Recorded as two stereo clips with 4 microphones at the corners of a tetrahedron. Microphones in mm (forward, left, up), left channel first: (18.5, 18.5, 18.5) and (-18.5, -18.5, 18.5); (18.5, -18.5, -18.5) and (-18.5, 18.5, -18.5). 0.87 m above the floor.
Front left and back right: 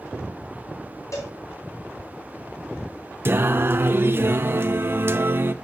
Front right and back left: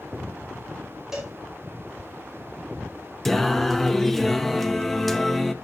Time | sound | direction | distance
1.1 | a cowbell | 55° left | 4.5 m
3.2 | singing | 130° right | 0.8 m